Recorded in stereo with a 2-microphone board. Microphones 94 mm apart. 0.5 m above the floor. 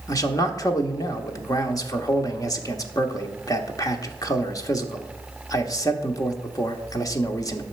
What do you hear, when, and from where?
0.1 s a man speaking: 35° left (ahead or behind), 1.0 m